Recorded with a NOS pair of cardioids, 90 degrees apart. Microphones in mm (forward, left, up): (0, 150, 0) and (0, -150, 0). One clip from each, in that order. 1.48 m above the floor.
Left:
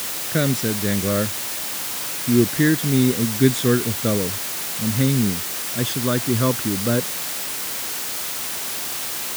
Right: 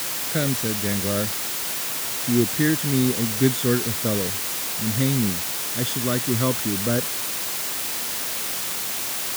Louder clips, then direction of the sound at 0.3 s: Left 4 dB; 30° left.